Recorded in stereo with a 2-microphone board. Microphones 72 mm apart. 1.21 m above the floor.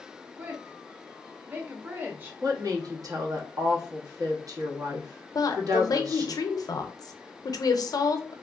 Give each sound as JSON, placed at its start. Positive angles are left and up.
{"t": 0.4, "sound": "a woman speaking", "side_deg": -25, "distance_m": 0.8}
{"t": 2.4, "sound": "a woman speaking", "side_deg": -55, "distance_m": 0.8}
{"t": 5.3, "sound": "a woman speaking", "side_deg": 55, "distance_m": 0.5}